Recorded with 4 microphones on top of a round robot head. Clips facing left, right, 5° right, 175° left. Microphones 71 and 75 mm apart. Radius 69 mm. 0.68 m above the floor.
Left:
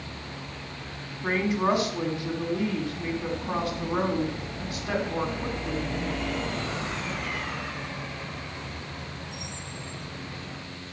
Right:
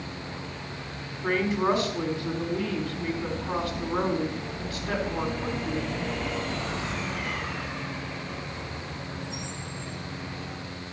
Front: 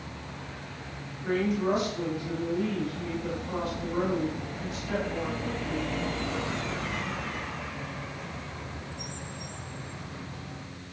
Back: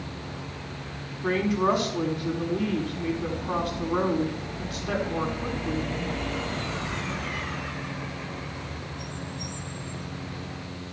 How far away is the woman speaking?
About 6 m.